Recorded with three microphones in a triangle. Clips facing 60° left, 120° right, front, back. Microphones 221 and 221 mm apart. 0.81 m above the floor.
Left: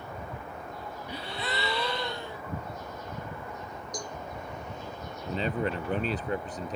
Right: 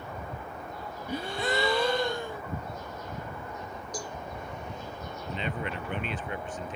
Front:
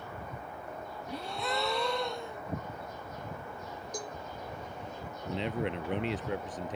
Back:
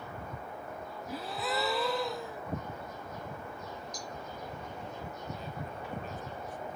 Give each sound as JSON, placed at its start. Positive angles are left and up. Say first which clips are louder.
{"t": 1.1, "sound": "a gasp", "louder": "right 6 dB, even", "azimuth_deg": -95}
{"t": 3.9, "sound": "a cowbell", "louder": "even, front 4 dB", "azimuth_deg": -35}
{"t": 5.2, "sound": "a man speaking", "louder": "left 5 dB, front 14 dB", "azimuth_deg": 5}